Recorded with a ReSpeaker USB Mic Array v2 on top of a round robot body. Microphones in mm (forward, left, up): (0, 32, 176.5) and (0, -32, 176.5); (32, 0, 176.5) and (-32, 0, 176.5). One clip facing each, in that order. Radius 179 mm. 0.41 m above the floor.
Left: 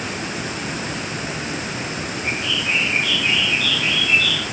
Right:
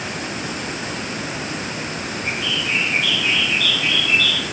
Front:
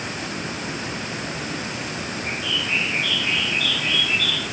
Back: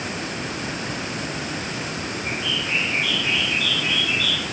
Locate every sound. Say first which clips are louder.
2.2 s a bird: left 1 dB, front 1 dB; 35° left, 9 m